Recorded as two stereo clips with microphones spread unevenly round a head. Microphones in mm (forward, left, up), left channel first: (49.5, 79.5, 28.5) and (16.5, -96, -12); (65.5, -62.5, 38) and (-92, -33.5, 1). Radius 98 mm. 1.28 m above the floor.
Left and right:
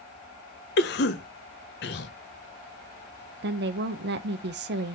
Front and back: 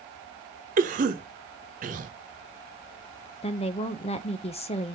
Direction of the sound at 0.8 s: 125° left.